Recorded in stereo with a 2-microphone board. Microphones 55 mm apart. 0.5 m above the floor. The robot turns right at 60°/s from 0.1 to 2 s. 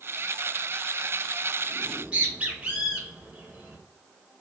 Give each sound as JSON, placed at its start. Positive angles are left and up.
{"t": 1.8, "sound": "a bird", "side_deg": -30, "distance_m": 0.8}